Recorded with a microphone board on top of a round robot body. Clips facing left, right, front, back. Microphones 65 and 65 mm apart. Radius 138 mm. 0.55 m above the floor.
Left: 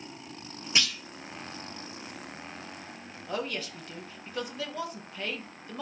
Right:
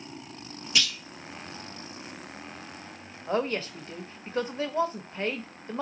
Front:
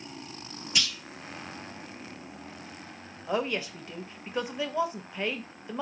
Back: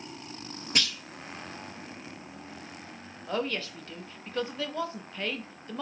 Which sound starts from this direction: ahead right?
A woman speaking, at 3.3 s.